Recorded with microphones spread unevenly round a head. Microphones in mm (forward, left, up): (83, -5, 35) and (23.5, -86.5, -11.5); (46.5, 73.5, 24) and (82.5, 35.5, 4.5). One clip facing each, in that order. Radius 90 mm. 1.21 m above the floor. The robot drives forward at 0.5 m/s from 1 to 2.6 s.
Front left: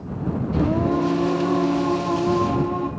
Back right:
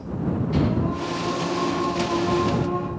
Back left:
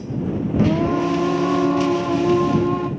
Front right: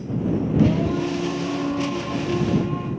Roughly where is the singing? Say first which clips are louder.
Front left 4 dB, back left 4 dB; left.